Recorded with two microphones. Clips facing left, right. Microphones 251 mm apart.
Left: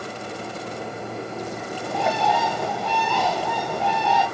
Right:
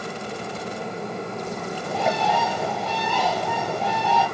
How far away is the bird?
About 2.5 m.